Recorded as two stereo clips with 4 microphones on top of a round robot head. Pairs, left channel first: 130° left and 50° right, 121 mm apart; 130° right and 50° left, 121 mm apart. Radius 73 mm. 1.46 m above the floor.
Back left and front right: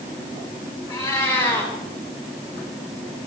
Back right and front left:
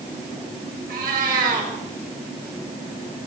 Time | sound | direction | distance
0.9 | a cat meowing | 75° left | 8 m